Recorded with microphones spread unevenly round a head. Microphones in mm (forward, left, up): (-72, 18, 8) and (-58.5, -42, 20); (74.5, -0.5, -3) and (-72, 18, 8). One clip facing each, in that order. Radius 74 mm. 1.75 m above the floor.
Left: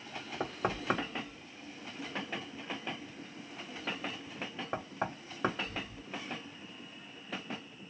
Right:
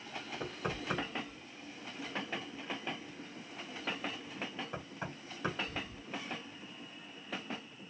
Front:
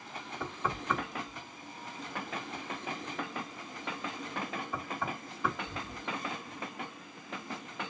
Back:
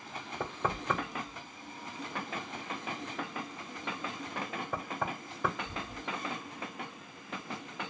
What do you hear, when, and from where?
0.4 s knocking: 140° left, 1.9 m